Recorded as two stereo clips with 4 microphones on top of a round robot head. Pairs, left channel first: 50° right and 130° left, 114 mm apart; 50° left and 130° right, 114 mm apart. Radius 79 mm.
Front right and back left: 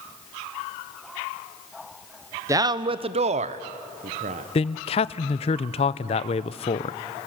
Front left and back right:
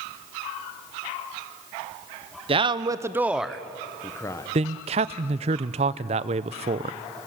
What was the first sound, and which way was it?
A man speaking, 170° right.